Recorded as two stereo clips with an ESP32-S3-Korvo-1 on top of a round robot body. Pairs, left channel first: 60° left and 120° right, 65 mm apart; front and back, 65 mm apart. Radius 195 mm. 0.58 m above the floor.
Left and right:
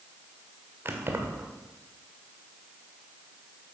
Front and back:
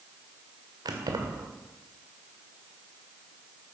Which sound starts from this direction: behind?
Keys jangling, at 0.8 s.